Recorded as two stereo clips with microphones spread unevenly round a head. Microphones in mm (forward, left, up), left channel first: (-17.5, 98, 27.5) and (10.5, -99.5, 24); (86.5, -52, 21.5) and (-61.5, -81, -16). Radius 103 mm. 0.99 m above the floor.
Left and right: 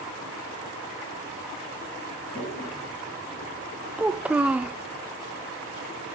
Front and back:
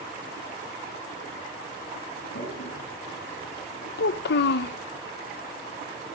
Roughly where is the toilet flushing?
Ahead.